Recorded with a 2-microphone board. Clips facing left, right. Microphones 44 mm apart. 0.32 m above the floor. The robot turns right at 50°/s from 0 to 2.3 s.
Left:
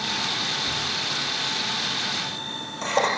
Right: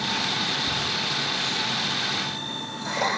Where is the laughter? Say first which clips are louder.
Right 1 dB; 10° right (ahead or behind), 8 m; by 3.1 s 70° left (ahead or behind), 8 m.